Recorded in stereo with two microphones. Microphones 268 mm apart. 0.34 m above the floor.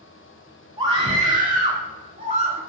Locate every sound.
0.8 s a scream: 20° right (ahead or behind), 1.4 m; by 2.6 s 25° right (ahead or behind), 1.8 m